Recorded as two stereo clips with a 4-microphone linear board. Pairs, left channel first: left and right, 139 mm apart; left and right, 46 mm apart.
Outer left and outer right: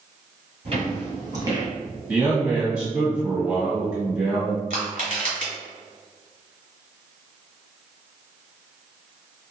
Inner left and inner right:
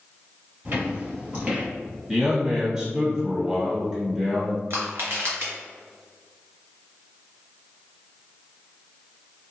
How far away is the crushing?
About 1.6 m.